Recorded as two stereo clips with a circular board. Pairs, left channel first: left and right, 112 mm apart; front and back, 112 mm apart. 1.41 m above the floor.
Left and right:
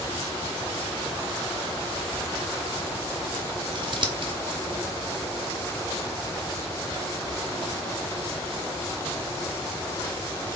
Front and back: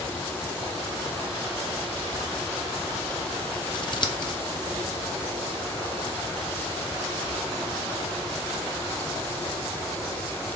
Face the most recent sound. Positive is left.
turn(degrees=-45)